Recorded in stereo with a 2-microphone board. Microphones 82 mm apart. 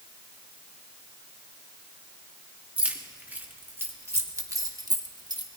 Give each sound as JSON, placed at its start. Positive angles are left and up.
{"t": 2.8, "sound": "keys jangling", "side_deg": -20, "distance_m": 1.8}